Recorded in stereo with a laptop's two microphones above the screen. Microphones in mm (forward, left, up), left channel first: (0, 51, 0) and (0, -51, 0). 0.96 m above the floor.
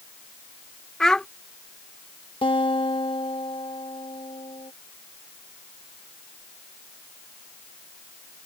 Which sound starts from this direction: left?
A guitar, at 2.4 s.